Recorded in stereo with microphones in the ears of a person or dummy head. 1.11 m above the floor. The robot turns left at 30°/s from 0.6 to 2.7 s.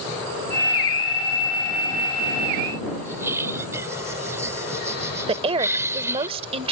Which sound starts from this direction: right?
A woman speaking, at 5.3 s.